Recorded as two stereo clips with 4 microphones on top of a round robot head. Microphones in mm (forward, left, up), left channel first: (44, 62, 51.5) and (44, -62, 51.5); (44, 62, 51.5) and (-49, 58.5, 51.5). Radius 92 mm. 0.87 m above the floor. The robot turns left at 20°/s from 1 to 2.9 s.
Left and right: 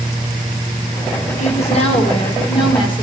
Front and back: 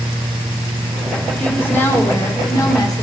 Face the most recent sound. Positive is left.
turn(degrees=45)